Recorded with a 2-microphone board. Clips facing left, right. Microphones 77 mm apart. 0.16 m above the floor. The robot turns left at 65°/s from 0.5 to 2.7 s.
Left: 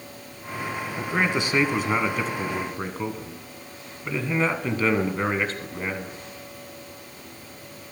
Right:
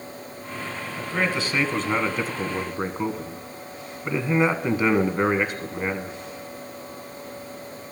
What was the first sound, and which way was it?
A man speaking, 25° left (ahead or behind).